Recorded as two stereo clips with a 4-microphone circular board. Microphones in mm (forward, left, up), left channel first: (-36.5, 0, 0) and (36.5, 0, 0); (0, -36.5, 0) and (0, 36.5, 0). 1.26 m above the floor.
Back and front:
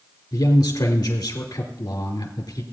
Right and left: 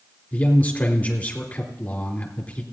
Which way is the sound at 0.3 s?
155° right.